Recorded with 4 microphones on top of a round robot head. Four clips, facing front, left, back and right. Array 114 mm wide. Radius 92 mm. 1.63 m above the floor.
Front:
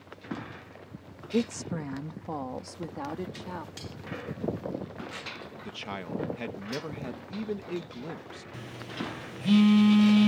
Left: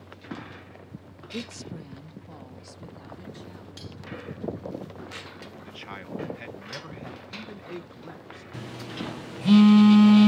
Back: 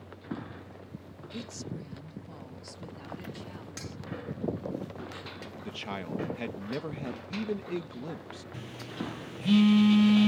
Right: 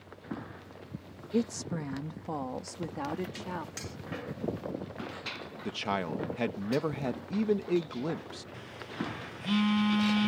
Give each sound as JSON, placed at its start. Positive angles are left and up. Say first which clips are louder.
{"t": 1.3, "sound": "a woman speaking", "louder": "right 7 dB, front 11 dB", "azimuth_deg": -25}
{"t": 3.8, "sound": "cutlery clinking", "louder": "even, even", "azimuth_deg": -140}
{"t": 5.7, "sound": "a man speaking", "louder": "right 10 dB, back 1 dB", "azimuth_deg": -95}
{"t": 8.5, "sound": "a phone buzzing", "louder": "left 3 dB, front 1 dB", "azimuth_deg": 80}